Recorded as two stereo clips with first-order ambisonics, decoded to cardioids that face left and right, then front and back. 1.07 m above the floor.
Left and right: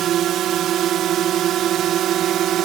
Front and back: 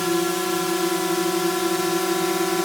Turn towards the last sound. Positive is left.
turn(degrees=-80)